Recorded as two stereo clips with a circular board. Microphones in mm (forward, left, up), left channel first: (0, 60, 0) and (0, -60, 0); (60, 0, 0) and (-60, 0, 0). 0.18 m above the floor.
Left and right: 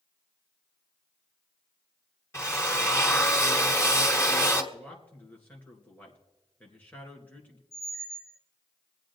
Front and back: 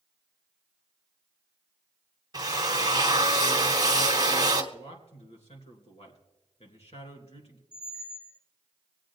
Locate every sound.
2.3 s a drill: 145° left, 1.4 m
4.7 s a man speaking: 15° left, 2.5 m
7.7 s a squeak: straight behind, 0.8 m